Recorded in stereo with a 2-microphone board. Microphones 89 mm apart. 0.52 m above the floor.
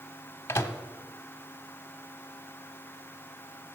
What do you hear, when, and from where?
0.5 s a microwave: 25° left (ahead or behind), 0.8 m